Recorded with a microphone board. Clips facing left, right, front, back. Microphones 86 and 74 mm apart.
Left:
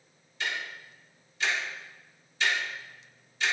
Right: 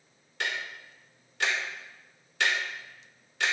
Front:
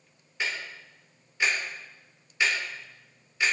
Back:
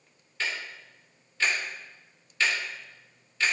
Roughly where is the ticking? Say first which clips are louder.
Right 1 dB, even; right.